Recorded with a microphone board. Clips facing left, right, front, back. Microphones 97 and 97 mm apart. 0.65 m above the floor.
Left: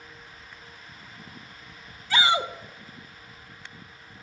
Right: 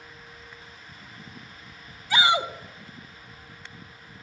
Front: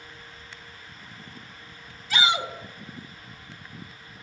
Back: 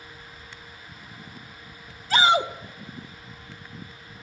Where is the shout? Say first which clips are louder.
Right 1 dB, back 5 dB; 155° right, 0.8 m.